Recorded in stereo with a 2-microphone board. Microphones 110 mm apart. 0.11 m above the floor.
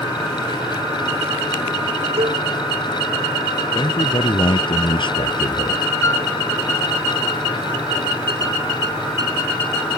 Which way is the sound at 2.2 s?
70° right (ahead or behind).